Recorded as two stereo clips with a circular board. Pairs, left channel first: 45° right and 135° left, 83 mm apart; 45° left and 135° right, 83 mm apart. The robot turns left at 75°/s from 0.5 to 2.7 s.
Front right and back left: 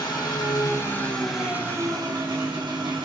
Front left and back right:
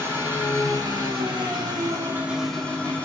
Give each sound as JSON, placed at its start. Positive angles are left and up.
{"t": 0.0, "sound": "an engine running", "azimuth_deg": -75, "distance_m": 2.5}